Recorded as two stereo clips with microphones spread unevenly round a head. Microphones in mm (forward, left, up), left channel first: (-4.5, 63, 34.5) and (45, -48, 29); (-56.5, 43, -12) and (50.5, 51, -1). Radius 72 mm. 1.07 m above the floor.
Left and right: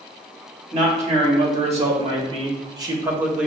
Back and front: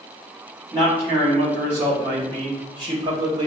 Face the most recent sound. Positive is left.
turn(degrees=5)